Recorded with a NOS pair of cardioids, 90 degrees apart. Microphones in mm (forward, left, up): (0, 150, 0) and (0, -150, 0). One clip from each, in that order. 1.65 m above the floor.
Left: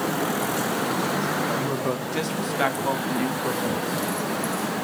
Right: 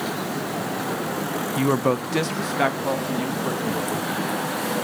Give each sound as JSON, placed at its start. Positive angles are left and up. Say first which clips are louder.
{"t": 1.6, "sound": "a woman speaking", "louder": "right 4 dB", "azimuth_deg": -50, "distance_m": 0.6}